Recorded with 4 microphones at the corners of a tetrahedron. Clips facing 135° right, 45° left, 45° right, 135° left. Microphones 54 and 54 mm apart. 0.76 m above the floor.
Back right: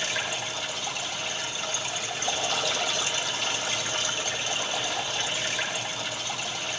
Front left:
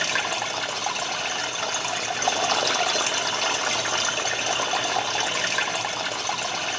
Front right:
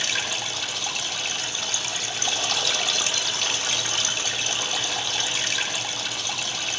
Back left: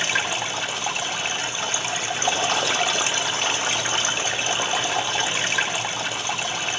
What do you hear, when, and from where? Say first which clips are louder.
0.0 s running water: front left 5 dB, back left 4 dB; 70° left, 1.3 m